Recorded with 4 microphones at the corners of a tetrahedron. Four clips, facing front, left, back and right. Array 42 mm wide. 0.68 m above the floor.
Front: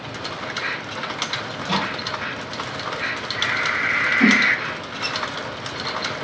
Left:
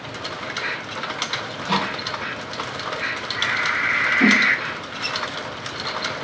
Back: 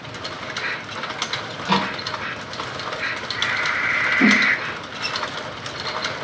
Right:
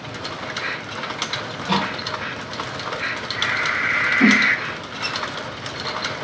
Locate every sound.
1.5 s a microwave: straight behind, 1.7 m
4.2 s a whoosh: 175° left, 1.6 m